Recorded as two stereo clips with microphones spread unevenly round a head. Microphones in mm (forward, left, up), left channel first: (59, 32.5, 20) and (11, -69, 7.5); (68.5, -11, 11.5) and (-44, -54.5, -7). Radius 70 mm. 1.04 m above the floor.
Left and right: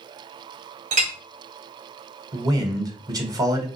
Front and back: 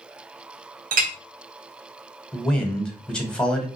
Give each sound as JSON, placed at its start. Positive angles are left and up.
{"t": 0.9, "sound": "a clink", "azimuth_deg": -160, "distance_m": 0.7}
{"t": 2.3, "sound": "a man speaking", "azimuth_deg": -65, "distance_m": 1.1}